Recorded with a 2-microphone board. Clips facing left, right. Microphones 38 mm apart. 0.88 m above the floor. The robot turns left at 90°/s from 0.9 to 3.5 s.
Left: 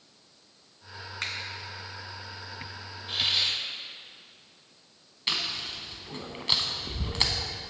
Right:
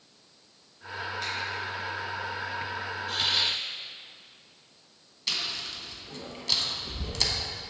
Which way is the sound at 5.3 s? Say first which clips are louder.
Left 2 dB; 35° left (ahead or behind).